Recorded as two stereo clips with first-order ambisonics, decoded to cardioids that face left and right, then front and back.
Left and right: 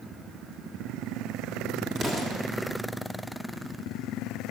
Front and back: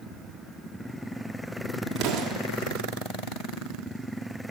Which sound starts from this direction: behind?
An explosion, at 2.0 s.